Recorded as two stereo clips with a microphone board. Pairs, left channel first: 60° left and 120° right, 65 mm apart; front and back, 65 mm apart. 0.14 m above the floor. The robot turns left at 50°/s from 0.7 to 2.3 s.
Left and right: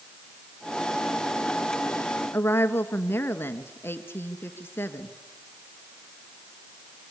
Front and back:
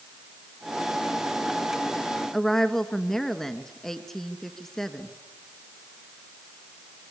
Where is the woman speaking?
80° left, 1.5 m.